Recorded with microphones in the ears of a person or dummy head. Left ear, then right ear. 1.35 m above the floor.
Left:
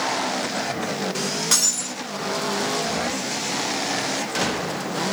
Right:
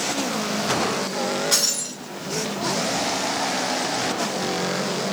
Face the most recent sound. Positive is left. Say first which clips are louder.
# left 1 dB
turn(degrees=25)  # may be behind; listen again after turning